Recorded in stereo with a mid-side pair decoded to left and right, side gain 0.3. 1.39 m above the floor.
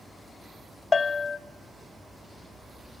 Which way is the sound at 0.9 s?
50° left.